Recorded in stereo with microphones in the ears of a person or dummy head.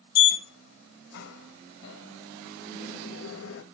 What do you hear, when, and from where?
0.1 s a sliding door: 75° left (ahead or behind), 1.1 m